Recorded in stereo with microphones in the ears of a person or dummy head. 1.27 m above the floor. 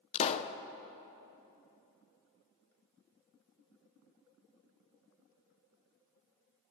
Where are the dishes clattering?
No dishes clattering in this recording.